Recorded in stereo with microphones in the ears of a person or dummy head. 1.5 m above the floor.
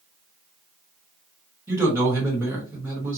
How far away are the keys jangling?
No keys jangling in this recording.